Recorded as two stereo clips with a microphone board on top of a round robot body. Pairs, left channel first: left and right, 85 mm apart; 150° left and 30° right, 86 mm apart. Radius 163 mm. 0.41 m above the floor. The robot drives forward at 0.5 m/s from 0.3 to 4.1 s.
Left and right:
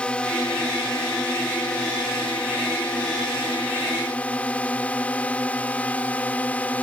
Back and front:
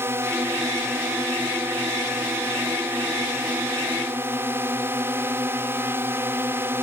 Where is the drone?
20° left; by 6.8 s 25° left.